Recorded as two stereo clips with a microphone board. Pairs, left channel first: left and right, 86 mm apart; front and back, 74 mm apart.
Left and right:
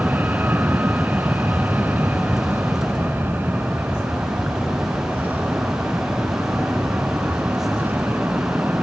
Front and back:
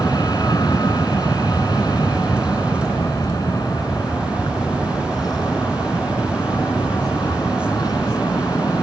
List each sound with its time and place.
0.0 s an aircraft: 25° right